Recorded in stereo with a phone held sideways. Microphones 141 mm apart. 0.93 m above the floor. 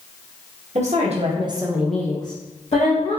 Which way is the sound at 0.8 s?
55° right (ahead or behind).